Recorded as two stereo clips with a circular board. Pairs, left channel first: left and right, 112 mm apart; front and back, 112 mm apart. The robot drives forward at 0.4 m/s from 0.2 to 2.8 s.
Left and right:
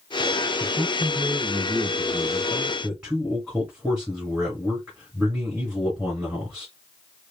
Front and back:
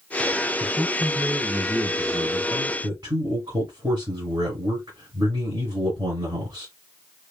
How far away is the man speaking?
About 1.8 m.